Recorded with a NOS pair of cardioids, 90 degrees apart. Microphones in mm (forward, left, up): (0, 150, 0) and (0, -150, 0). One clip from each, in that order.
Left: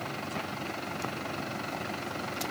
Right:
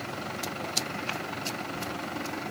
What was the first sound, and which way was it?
Only background noise.